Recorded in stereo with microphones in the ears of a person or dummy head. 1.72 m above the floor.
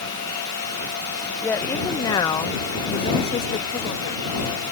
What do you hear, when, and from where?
1.4 s a woman speaking: 10° left (ahead or behind); by 4.3 s 40° left (ahead or behind)